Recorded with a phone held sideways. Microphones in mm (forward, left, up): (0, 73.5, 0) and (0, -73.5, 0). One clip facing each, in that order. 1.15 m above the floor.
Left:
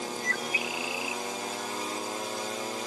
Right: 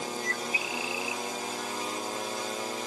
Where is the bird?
30° right (ahead or behind), 0.9 m.